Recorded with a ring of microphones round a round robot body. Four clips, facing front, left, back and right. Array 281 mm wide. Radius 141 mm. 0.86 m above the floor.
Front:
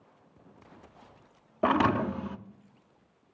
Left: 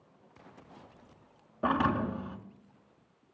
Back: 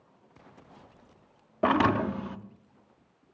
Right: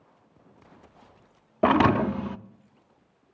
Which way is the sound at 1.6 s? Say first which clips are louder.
Right 8 dB, back 1 dB; 95° right.